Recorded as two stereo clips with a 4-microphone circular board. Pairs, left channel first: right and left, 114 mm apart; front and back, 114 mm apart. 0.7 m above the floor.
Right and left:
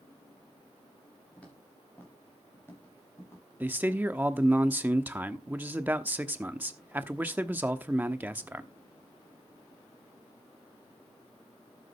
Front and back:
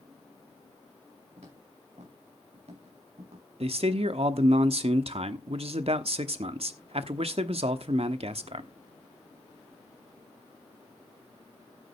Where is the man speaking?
165° left, 1.0 m.